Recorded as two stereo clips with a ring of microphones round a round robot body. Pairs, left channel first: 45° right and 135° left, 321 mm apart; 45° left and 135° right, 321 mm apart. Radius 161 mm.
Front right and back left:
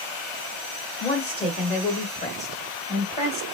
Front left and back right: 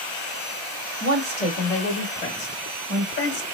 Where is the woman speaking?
90° right, 1.1 m; by 3.4 s 20° left, 1.6 m.